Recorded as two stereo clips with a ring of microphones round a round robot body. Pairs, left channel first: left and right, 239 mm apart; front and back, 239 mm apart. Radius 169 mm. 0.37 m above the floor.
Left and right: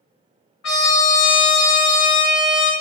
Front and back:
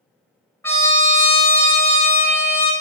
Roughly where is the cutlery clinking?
I don't hear cutlery clinking.